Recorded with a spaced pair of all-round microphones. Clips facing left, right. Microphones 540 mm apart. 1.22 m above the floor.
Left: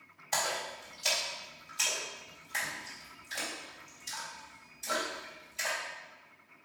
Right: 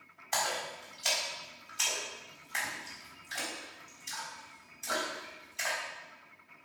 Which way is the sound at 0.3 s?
60° left (ahead or behind).